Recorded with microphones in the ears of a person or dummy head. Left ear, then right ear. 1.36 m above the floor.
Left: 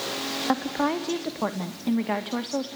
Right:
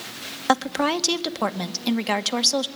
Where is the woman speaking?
80° right, 1.9 m.